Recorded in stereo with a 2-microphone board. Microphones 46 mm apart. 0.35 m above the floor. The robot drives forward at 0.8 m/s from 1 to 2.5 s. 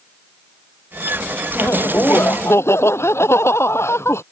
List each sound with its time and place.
1.6 s laughter: 75° left (ahead or behind)